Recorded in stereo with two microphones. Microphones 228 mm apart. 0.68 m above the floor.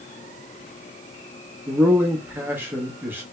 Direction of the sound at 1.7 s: 10° right (ahead or behind).